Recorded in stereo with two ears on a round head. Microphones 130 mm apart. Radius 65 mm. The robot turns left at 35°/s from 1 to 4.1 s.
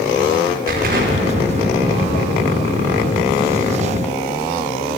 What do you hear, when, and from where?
0.7 s an explosion: 100° right, 0.7 m; by 4.9 s 150° left, 0.7 m